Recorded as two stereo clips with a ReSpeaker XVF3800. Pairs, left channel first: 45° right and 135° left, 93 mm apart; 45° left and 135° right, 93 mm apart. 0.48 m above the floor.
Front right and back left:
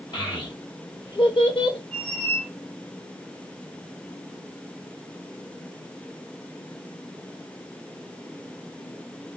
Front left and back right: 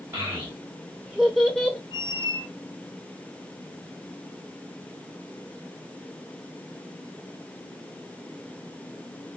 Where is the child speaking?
75° right, 1.3 m; by 1.8 s 35° right, 0.8 m.